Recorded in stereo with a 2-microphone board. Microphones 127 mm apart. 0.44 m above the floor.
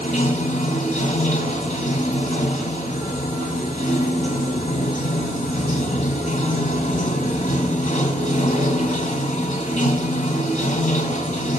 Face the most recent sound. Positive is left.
turn(degrees=85)